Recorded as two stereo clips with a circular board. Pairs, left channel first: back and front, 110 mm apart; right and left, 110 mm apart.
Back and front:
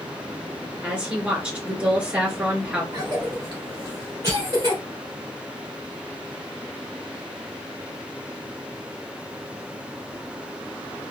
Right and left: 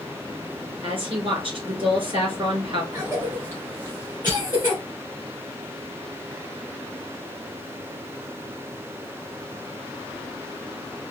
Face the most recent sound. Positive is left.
turn(degrees=50)